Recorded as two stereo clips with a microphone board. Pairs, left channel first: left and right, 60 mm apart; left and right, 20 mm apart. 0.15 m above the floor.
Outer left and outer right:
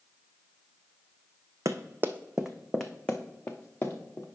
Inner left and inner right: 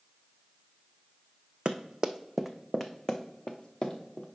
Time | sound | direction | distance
1.6 | running footsteps | 60° right (ahead or behind) | 0.6 m